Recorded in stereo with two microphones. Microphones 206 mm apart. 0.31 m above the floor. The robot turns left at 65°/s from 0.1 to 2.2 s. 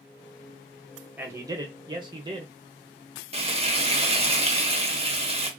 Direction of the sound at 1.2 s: 10° right (ahead or behind).